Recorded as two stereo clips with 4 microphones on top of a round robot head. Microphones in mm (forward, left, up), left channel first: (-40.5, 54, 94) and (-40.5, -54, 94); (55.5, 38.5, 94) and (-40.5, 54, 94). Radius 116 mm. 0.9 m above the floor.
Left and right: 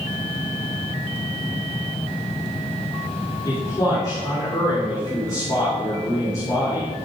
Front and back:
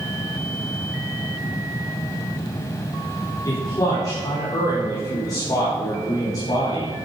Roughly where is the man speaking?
Ahead left.